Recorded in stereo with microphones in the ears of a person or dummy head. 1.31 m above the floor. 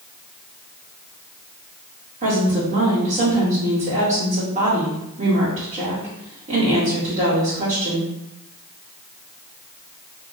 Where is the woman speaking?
40° right (ahead or behind), 1.8 m.